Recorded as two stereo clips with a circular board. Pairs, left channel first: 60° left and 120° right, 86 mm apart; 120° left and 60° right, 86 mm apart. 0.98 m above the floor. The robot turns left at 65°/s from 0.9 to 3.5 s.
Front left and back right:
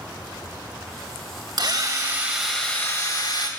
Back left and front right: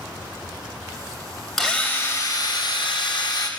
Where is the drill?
155° right, 3 m; by 3.5 s 80° left, 3 m.